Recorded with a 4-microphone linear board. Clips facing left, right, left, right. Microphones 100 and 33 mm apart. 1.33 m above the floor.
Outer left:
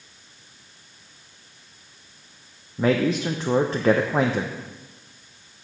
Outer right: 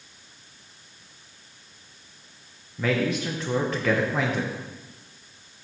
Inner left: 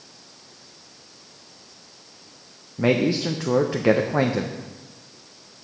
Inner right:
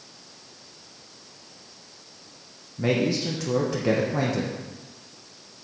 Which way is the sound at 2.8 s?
30° left (ahead or behind).